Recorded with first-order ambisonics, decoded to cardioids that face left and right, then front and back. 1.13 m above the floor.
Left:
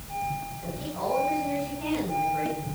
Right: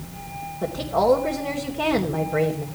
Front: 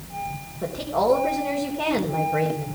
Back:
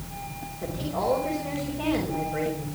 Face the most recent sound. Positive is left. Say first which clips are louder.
# right 15 dB, front 6 dB
turn(degrees=-70)